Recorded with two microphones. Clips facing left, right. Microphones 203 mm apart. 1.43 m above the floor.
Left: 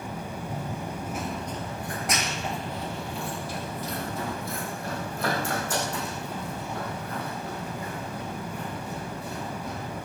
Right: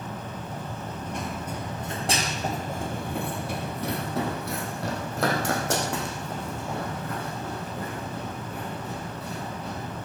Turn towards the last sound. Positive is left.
turn(degrees=-80)